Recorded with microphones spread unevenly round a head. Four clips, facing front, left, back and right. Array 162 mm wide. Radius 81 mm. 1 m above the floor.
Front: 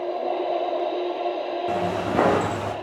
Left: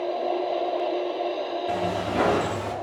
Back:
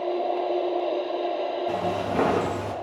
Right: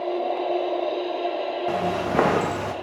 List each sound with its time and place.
1.7 s footsteps: 40° right, 4 m